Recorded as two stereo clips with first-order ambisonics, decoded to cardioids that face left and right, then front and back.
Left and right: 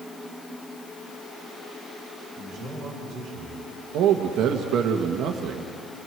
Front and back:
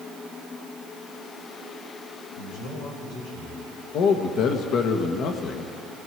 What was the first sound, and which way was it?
A man speaking, 10° right.